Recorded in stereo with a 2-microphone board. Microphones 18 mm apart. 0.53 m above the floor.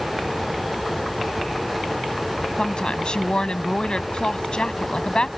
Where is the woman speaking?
50° left (ahead or behind).